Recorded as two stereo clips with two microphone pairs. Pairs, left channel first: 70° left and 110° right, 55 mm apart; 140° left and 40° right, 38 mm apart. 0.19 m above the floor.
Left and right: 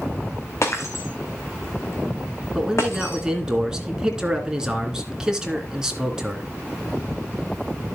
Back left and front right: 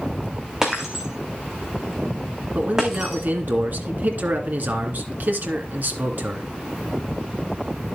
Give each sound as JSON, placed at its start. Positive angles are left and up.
{"t": 0.6, "sound": "breaking glass", "azimuth_deg": 35, "distance_m": 2.5}
{"t": 2.5, "sound": "a man speaking", "azimuth_deg": -35, "distance_m": 2.5}